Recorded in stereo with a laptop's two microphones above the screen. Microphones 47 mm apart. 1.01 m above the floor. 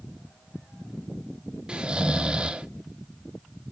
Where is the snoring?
20° right (ahead or behind), 0.6 m.